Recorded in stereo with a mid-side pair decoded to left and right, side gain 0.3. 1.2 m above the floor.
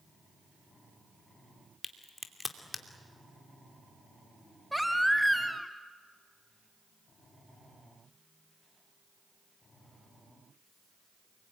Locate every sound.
1.8 s a crack: 35° left, 2.5 m
4.7 s a baby crying: straight ahead, 2.5 m